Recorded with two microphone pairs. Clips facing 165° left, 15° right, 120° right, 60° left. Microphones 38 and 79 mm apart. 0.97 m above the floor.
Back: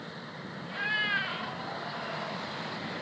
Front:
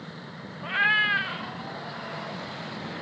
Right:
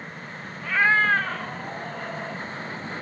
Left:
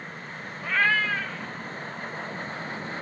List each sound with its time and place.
0.6 s a cat meowing: 15° right, 0.6 m; by 2.4 s 120° right, 2.5 m